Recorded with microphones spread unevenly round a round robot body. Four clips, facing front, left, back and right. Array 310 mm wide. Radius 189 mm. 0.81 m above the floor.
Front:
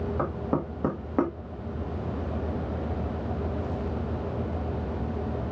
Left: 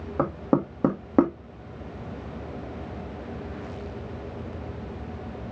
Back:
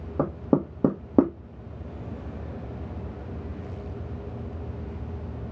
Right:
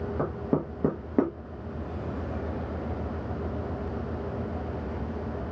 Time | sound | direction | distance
0.2 | knocking | 165° left | 0.8 m